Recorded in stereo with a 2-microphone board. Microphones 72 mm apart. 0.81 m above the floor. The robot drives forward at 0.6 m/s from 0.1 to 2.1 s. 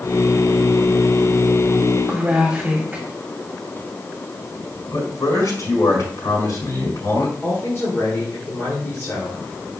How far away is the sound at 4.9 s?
About 4.5 m.